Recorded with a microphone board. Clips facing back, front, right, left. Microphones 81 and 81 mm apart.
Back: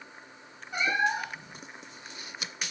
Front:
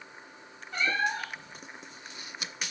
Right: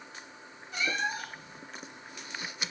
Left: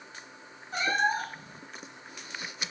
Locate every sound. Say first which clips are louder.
0.7 s a cat meowing: back 2 dB, left 5 dB; 110° left, 0.5 m